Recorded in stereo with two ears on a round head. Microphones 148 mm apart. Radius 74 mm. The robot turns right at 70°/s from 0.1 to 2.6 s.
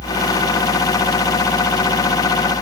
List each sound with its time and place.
Only background noise.